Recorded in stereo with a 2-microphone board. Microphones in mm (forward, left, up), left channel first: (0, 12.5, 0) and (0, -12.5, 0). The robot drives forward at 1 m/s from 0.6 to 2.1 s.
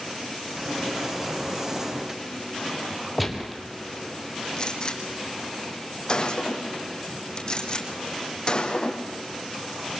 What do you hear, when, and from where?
3.2 s a gunshot: centre (ahead or behind), 2 m
4.6 s a gunshot: 35° left (ahead or behind), 3 m